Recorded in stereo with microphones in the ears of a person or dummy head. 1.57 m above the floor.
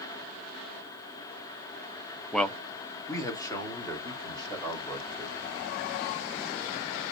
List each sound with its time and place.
2.3 s a man speaking: centre (ahead or behind), 0.5 m; by 5.3 s 25° left (ahead or behind), 2.5 m